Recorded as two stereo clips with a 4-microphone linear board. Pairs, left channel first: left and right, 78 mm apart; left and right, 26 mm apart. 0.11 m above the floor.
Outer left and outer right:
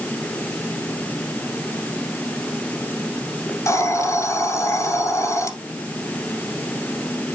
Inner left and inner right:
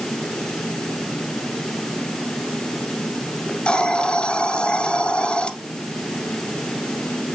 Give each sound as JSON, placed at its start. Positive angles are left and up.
{"t": 3.5, "sound": "a hiss", "side_deg": 35, "distance_m": 1.9}